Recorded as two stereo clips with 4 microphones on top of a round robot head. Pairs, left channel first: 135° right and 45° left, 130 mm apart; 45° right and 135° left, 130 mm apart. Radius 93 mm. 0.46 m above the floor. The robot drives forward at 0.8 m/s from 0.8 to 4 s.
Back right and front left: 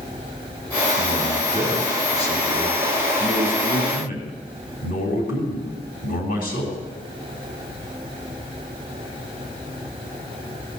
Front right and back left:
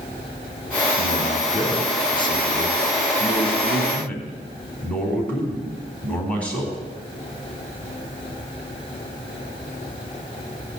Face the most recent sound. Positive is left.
turn(degrees=-125)